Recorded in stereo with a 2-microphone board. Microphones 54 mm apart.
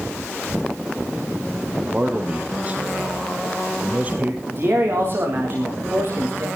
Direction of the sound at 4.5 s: 45° right (ahead or behind).